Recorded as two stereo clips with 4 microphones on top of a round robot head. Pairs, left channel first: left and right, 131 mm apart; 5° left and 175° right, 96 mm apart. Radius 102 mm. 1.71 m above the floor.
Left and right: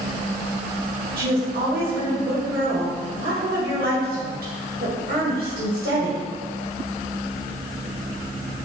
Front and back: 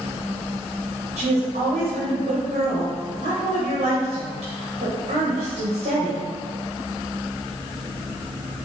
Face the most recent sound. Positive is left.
turn(degrees=-125)